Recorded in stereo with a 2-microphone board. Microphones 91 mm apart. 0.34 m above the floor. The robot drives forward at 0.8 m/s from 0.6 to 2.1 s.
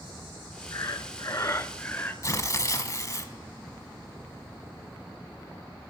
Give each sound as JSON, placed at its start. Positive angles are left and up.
{"t": 0.7, "sound": "breathing", "side_deg": 40, "distance_m": 0.6}
{"t": 2.2, "sound": "tearing paper", "side_deg": 40, "distance_m": 1.0}